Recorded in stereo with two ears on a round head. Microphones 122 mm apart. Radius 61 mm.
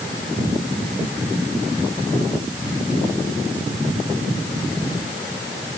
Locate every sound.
Only background noise.